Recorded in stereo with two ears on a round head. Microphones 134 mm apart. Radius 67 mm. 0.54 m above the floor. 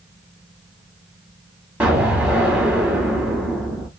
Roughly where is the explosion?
Centre.